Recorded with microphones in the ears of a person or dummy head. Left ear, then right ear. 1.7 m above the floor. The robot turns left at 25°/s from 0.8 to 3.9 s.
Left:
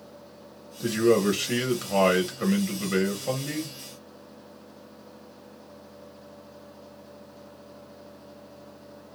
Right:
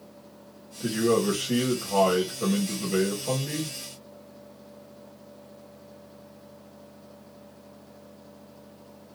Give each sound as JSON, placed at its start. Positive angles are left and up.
{"t": 0.8, "sound": "a man speaking", "azimuth_deg": 100, "distance_m": 0.9}